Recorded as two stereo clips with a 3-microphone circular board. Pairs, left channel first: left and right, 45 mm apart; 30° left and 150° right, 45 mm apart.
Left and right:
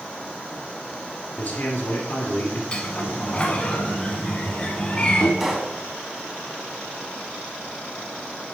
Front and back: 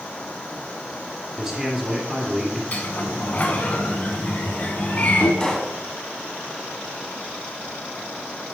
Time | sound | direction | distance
1.4 | a man speaking | 140° left | 2.5 m
2.7 | a sliding door | 40° left | 1.0 m
5.4 | a pop | 20° right | 0.9 m